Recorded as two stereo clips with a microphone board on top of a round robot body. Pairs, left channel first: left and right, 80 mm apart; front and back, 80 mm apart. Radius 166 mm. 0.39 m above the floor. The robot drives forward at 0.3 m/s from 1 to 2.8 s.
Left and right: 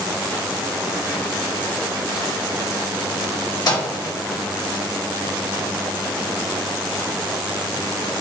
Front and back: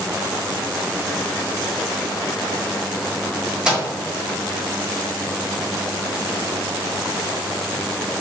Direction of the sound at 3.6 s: 100° left.